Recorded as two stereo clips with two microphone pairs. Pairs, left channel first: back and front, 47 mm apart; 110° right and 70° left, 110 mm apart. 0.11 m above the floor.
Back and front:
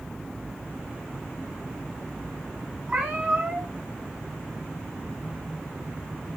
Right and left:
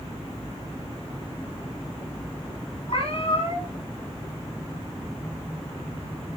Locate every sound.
2.9 s a cat meowing: 75° right, 4.5 m